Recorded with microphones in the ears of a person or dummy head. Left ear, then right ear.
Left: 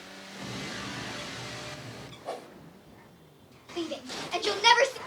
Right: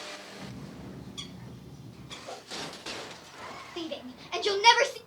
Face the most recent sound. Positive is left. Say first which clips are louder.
# left 5 dB
turn(degrees=0)  # may be behind; listen again after turning